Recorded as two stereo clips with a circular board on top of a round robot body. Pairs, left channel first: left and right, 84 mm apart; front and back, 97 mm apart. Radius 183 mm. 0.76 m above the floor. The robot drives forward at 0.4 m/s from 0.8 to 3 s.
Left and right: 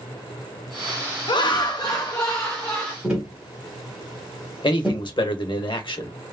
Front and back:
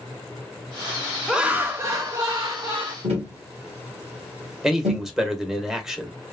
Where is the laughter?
95° left, 0.6 m; by 2.9 s 145° left, 0.9 m.